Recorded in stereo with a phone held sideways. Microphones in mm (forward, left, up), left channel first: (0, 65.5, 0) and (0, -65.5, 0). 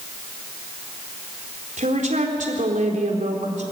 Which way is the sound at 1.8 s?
70° right (ahead or behind).